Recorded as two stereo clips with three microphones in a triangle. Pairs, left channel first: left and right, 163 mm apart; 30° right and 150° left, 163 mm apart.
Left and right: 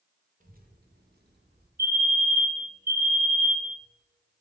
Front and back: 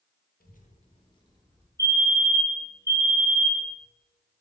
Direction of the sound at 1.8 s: 100° right.